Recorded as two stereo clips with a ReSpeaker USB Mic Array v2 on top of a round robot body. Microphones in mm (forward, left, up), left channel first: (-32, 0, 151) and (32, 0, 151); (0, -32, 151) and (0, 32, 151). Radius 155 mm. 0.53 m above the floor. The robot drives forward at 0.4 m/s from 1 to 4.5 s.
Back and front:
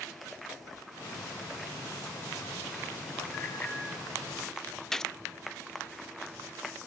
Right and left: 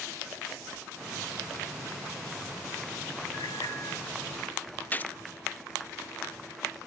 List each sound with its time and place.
3.3 s a bicycle bell: 115° right, 3.5 m
4.9 s a gunshot: 105° right, 0.6 m